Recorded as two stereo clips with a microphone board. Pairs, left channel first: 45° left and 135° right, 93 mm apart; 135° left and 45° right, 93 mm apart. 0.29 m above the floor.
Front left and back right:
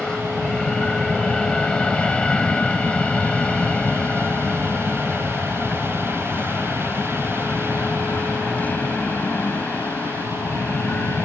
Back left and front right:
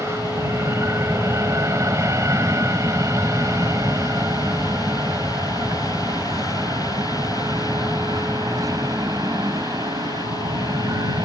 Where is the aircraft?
30° right; by 11.3 s 20° right.